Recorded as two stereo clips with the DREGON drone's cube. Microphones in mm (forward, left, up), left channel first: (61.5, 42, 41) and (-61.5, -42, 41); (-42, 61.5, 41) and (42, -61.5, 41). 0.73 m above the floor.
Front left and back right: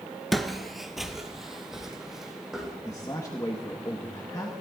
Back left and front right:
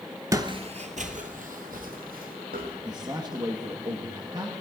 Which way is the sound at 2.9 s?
15° right.